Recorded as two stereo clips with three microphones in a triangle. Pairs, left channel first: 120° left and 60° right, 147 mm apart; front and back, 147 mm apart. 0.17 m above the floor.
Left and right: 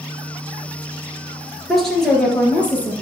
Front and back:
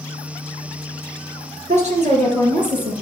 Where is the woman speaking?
150° right, 3 m; by 2.9 s 160° right, 3.5 m.